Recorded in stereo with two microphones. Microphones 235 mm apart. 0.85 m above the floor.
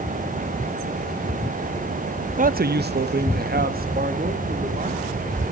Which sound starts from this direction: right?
A man speaking, at 2.4 s.